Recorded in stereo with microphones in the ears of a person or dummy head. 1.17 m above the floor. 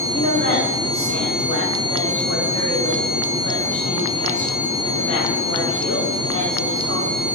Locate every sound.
0.1 s a woman speaking: 85° left, 2.5 m